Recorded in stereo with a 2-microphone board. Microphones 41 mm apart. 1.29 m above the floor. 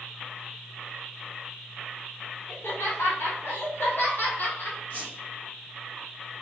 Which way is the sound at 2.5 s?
80° left.